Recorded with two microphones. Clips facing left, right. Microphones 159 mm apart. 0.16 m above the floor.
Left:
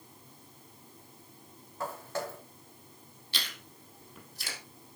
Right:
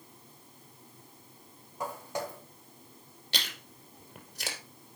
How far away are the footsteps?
About 2.5 m.